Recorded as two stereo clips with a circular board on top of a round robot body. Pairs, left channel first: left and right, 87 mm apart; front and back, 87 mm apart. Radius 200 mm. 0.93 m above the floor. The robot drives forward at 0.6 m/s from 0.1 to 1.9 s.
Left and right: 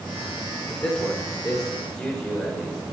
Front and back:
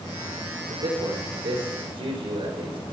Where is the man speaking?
170° left, 3.5 m.